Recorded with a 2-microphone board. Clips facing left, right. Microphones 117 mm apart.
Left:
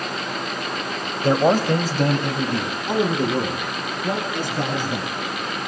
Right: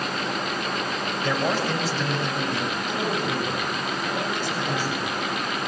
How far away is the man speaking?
About 1.0 m.